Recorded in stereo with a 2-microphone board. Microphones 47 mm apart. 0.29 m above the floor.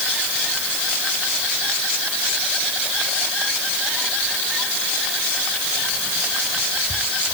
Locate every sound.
Only background noise.